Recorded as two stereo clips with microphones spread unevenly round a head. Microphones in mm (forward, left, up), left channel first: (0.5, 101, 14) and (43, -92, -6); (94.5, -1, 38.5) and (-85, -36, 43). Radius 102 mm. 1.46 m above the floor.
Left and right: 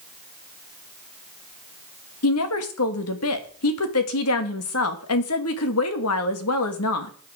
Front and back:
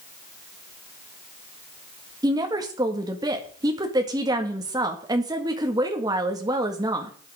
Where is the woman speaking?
120° left, 1.9 m.